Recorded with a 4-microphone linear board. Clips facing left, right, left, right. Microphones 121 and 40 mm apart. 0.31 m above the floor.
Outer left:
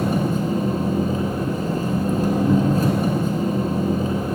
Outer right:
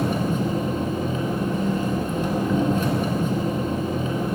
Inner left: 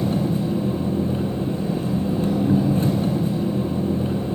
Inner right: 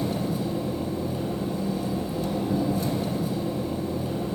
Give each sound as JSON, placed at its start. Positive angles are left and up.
{"t": 0.0, "sound": "an engine running", "side_deg": 40, "distance_m": 1.6}